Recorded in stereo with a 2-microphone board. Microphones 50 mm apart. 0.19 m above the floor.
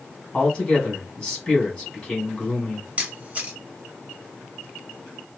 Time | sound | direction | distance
0.3 | a man speaking | 20° left (ahead or behind) | 1.7 m
3.0 | a camera shutter | 30° right (ahead or behind) | 1.0 m